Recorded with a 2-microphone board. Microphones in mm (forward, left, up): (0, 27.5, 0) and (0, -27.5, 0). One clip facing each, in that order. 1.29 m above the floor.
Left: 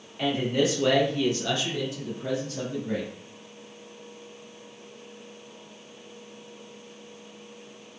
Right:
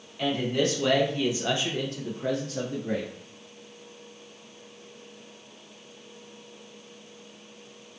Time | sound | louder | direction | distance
0.2 | a man speaking | left 1 dB | 15° left (ahead or behind) | 1.2 m